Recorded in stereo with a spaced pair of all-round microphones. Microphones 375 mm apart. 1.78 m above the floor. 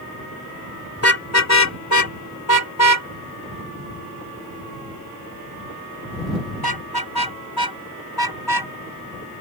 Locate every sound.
1.0 s a car horn: 40° left (ahead or behind); by 8.7 s 80° left